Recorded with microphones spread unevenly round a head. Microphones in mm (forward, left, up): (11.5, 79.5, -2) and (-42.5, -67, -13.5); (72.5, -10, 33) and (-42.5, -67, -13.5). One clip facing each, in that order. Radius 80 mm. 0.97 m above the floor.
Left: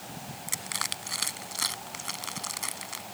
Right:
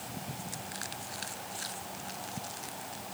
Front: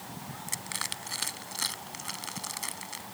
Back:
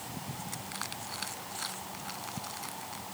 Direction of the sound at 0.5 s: 65° left.